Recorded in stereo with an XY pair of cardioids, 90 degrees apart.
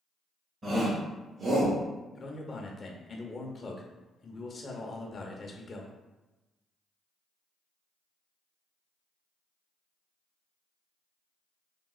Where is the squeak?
I don't hear a squeak.